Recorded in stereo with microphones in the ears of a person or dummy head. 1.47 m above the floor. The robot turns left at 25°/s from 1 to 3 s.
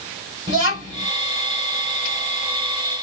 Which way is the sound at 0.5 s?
30° right (ahead or behind).